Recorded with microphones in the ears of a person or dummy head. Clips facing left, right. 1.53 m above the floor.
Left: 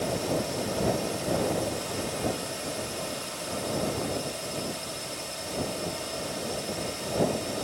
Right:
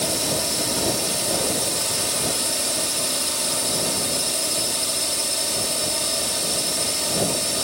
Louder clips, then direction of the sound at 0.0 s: Right 2 dB; 75° right (ahead or behind).